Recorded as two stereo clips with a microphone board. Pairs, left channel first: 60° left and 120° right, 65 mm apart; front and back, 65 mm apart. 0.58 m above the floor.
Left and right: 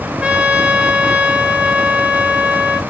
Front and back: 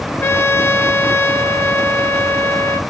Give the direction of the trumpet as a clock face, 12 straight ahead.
2 o'clock.